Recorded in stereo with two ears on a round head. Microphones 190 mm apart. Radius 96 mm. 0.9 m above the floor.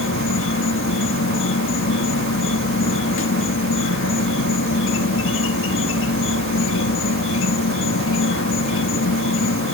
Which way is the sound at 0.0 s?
65° left (ahead or behind).